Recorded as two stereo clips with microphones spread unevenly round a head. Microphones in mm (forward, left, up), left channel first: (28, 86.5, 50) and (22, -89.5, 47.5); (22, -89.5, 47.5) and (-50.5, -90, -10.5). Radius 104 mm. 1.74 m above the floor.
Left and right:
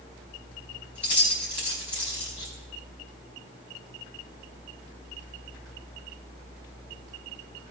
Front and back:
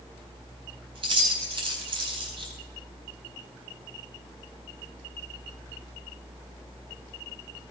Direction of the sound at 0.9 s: 170° right.